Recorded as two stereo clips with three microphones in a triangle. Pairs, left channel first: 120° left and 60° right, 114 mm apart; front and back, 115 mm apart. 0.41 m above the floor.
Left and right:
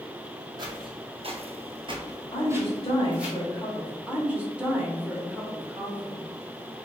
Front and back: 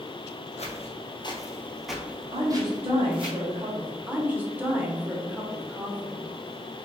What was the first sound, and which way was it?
Footsteps, 15° right.